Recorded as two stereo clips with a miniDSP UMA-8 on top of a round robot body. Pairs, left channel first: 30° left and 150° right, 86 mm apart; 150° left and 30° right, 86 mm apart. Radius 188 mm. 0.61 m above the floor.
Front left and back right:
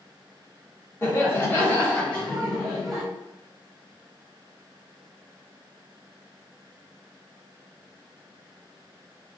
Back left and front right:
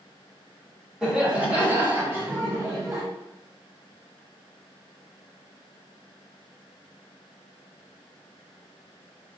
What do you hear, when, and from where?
1.0 s laughter: 45° left, 1.3 m; by 3.0 s 60° right, 1.4 m